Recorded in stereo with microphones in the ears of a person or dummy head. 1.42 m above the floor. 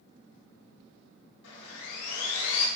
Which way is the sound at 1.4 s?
70° left (ahead or behind).